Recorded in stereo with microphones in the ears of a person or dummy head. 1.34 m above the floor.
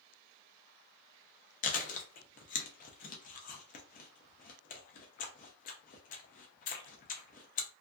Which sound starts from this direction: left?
Chewing, at 1.6 s.